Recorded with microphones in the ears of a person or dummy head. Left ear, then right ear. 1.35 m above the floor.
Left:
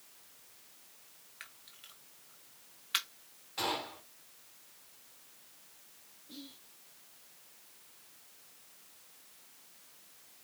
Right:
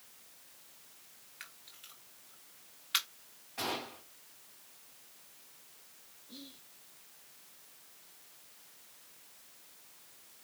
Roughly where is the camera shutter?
Centre.